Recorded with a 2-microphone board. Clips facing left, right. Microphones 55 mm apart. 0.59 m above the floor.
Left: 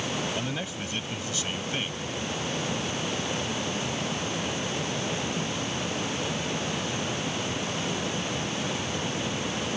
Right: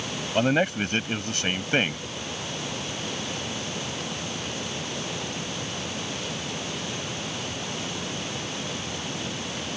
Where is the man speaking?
55° right (ahead or behind).